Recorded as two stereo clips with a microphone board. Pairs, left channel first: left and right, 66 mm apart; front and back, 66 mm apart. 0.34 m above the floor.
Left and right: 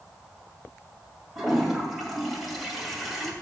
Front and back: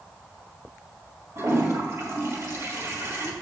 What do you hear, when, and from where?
1.4 s a toilet flushing: straight behind, 1.9 m